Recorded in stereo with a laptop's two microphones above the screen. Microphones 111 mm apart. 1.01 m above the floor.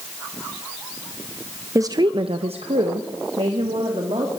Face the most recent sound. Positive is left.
turn(degrees=-60)  # may be behind; listen again after turning